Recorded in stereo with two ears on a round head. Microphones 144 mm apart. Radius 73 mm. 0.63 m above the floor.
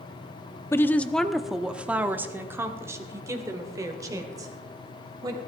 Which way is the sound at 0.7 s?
15° left (ahead or behind).